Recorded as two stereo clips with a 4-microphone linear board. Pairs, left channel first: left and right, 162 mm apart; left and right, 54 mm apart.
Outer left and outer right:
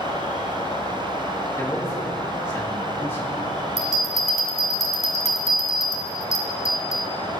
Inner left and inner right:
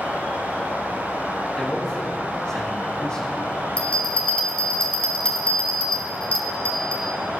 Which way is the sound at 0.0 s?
40° left (ahead or behind).